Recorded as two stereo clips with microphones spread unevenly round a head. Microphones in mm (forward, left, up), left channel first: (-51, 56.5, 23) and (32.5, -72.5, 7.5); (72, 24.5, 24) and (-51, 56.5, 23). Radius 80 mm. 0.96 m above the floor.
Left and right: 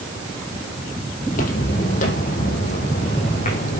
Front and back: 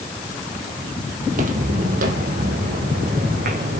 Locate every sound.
1.2 s footsteps: 150° left, 2 m; by 3.8 s 165° left, 4.5 m